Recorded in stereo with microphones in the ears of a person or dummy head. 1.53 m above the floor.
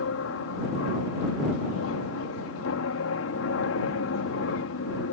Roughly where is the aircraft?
Left.